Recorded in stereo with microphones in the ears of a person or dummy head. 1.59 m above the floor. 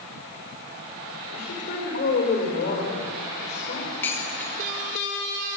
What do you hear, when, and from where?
1.3 s a woman speaking: 45° left (ahead or behind), 5.5 m
4.0 s dishes clattering: 20° left (ahead or behind), 3 m